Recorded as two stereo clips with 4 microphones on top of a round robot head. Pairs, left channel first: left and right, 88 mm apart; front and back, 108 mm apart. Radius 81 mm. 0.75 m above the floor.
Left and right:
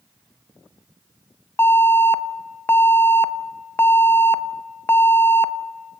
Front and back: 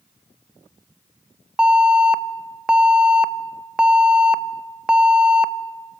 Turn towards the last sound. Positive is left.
turn(degrees=110)